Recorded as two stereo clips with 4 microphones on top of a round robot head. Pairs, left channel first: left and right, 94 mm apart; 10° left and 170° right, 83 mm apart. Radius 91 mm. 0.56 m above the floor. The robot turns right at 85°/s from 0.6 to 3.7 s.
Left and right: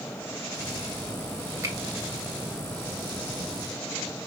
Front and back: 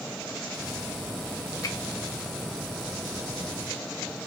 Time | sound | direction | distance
1.6 | a finger snap | 35° right | 1.7 m